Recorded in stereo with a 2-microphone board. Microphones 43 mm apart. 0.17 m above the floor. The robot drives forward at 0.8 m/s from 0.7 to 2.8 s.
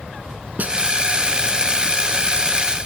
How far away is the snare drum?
About 0.8 m.